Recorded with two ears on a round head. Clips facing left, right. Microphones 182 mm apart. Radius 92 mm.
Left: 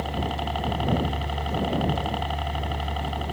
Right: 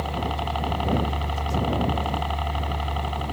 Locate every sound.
0.0 s a helicopter: 5° left (ahead or behind)